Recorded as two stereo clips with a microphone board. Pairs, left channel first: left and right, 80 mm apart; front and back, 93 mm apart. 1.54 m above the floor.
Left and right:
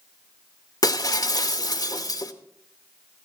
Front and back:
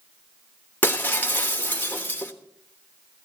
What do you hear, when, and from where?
0.8 s breaking glass: 65° left, 1.3 m